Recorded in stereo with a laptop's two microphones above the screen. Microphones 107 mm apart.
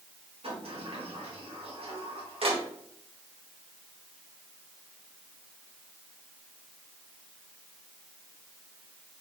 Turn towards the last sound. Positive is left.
turn(degrees=-65)  # may be behind; listen again after turning